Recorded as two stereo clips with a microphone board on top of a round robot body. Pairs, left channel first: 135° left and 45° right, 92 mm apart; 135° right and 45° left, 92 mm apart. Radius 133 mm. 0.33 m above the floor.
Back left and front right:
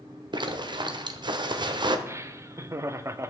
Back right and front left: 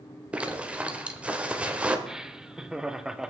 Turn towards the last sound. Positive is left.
turn(degrees=-30)